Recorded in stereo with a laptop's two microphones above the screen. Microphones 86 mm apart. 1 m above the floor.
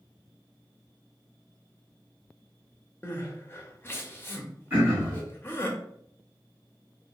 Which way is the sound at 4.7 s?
25° right (ahead or behind).